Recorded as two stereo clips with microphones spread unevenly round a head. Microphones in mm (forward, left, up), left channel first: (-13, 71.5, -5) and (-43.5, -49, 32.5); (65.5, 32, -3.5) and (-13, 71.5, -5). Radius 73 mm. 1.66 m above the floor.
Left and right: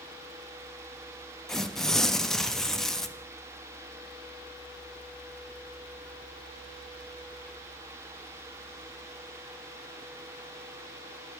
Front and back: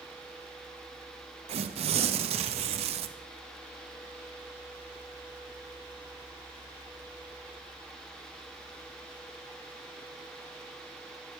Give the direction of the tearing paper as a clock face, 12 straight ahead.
7 o'clock.